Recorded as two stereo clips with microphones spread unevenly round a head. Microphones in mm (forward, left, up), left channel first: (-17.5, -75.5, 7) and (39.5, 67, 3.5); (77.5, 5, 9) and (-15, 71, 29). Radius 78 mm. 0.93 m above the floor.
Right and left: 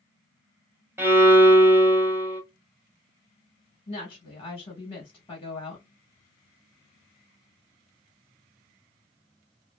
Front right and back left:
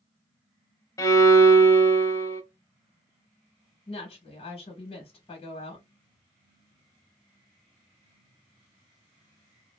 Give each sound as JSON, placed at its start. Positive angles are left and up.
{"t": 1.0, "sound": "a violin", "azimuth_deg": 10, "distance_m": 0.7}
{"t": 3.9, "sound": "a woman speaking", "azimuth_deg": -55, "distance_m": 1.1}